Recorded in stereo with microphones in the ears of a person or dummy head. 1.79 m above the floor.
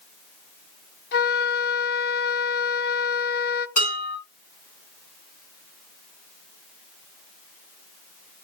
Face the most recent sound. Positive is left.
turn(degrees=40)  # may be behind; listen again after turning